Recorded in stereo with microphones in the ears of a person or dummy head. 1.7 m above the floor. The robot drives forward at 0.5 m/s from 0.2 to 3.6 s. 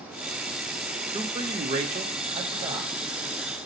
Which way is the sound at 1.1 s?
20° right (ahead or behind).